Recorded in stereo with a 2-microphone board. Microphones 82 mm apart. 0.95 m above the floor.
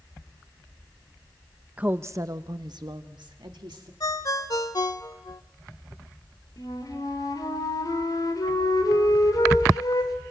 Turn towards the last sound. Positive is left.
turn(degrees=55)  # may be behind; listen again after turning